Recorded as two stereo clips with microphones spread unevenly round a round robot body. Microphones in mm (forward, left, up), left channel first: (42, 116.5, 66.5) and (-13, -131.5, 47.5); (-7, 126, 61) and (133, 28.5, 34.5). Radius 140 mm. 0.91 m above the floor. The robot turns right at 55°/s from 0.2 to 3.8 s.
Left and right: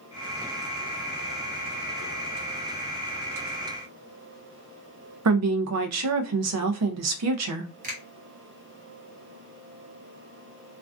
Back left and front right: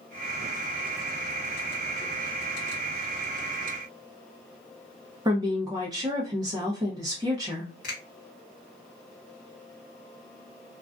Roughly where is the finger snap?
Behind.